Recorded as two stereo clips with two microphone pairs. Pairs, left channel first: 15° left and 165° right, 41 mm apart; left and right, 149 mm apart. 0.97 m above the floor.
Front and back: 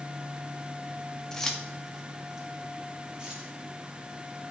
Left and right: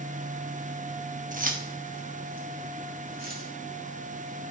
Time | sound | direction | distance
1.3 | keys jangling | 65° right | 1.0 m